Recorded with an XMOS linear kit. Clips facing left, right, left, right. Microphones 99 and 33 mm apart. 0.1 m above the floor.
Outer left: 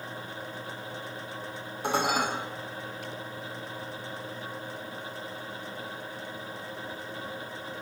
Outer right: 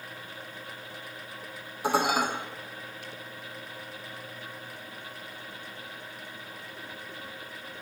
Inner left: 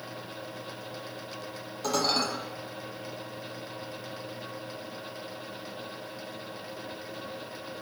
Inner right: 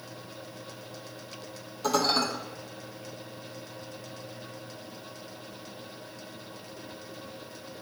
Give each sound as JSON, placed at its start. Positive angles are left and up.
{"t": 1.8, "sound": "dishes clattering", "side_deg": 0, "distance_m": 2.5}